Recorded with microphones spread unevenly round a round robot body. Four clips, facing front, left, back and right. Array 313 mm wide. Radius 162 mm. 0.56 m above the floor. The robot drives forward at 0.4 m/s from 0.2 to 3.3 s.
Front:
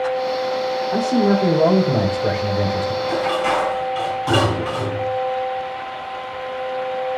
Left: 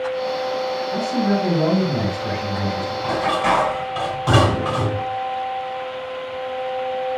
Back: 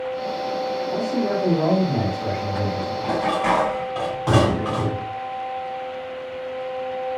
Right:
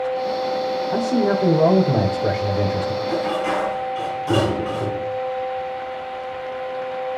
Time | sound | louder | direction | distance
0.9 | a man speaking | right 2 dB, front 7 dB | 60° right | 3 m
3.0 | dishes clattering | left 6 dB, back 1 dB | 125° left | 3.5 m